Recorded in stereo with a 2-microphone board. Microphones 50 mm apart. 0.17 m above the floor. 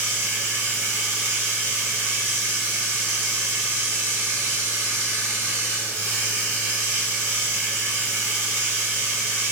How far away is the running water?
About 1.4 m.